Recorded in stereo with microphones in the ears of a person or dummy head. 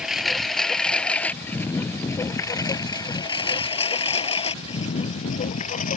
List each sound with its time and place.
0.0 s a lawn mower: 5° right (ahead or behind); by 6.0 s 40° left (ahead or behind)